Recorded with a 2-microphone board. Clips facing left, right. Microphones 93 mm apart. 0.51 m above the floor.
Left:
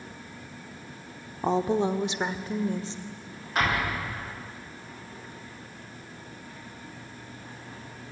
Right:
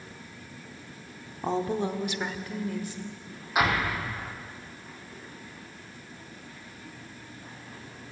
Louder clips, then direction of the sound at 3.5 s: Right 1 dB; 10° right (ahead or behind).